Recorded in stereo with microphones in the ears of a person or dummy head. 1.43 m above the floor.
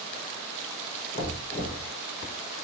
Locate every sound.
1.1 s knocking: 30° left (ahead or behind), 1.7 m